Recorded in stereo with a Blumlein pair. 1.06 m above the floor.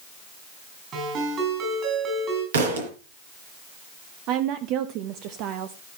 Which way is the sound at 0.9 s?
30° right.